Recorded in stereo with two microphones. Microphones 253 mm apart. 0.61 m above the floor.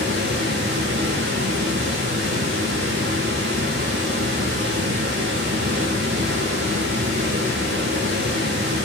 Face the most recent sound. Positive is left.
turn(degrees=-55)  # may be behind; listen again after turning